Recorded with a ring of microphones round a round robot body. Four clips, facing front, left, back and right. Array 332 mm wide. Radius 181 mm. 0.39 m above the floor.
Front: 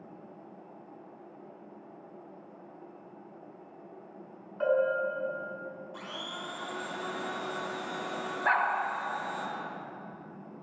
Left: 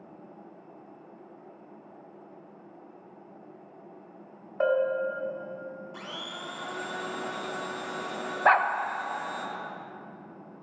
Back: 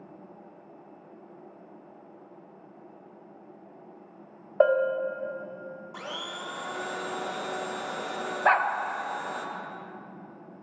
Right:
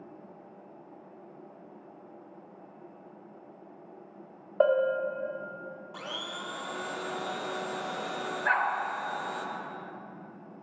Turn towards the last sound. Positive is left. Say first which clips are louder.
# left 6 dB, back 5 dB
turn(degrees=125)